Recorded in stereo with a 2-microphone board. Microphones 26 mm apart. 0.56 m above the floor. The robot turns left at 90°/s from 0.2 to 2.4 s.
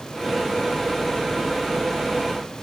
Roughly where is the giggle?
I don't hear a giggle.